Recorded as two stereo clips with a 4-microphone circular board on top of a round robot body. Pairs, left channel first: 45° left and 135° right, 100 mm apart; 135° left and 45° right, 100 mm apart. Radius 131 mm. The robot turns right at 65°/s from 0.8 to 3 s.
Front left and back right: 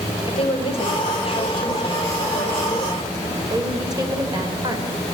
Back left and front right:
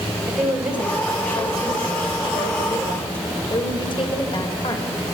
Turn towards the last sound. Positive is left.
turn(degrees=175)